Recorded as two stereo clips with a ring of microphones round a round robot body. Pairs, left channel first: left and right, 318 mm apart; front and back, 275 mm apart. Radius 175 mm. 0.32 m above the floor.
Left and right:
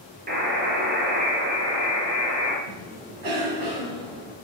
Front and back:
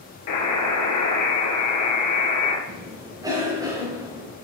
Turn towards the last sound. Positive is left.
turn(degrees=-105)